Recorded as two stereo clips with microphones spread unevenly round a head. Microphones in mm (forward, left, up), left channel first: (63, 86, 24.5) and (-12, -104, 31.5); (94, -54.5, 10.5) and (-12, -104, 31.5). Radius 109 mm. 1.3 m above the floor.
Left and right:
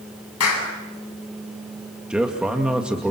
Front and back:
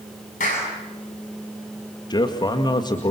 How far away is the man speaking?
About 2 m.